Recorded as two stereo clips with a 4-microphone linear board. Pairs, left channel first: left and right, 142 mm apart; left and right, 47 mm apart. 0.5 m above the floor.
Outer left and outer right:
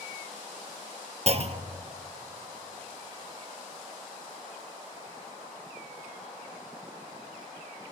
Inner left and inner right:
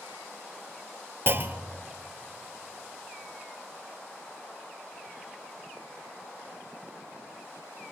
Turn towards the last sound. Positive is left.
turn(degrees=-45)  # may be behind; listen again after turning